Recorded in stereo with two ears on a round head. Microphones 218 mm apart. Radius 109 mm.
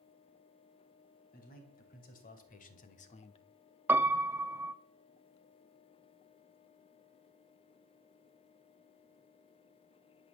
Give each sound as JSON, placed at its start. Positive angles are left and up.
{"t": 1.3, "sound": "a man speaking", "side_deg": 40, "distance_m": 4.0}
{"t": 3.9, "sound": "a piano", "side_deg": -10, "distance_m": 0.6}